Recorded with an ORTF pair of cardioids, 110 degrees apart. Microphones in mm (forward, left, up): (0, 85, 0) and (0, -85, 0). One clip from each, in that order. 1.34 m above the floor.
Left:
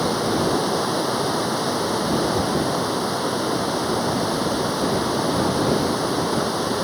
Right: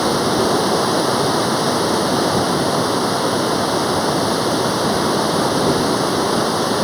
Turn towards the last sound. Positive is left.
turn(degrees=-35)